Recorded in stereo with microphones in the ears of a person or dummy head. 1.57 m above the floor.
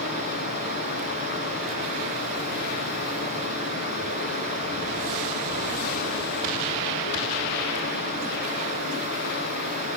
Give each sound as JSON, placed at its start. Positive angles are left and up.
{"t": 0.0, "sound": "running water", "side_deg": 50, "distance_m": 8.5}